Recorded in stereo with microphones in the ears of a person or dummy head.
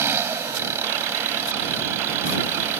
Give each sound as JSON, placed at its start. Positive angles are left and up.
{"t": 0.0, "sound": "an engine running", "side_deg": -10}